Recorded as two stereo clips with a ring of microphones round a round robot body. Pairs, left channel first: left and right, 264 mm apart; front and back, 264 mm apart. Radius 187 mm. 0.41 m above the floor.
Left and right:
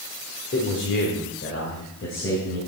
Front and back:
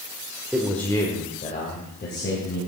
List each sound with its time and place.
0.5 s a man speaking: 100° left, 1.3 m; by 2.6 s 45° left, 3 m